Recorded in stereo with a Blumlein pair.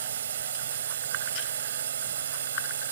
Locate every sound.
0.0 s a drone: 65° right